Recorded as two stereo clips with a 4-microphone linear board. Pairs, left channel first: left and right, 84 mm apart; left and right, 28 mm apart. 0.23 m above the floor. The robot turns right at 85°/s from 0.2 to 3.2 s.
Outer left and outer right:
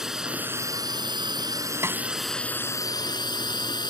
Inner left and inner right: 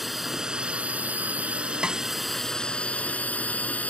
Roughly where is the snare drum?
Right.